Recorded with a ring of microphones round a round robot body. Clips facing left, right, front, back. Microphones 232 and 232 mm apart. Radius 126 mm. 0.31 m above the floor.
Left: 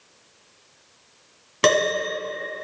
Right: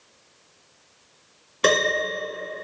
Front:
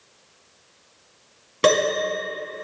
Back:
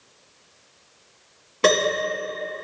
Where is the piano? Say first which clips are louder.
Left 2 dB, front 1 dB; 75° left, 2 m.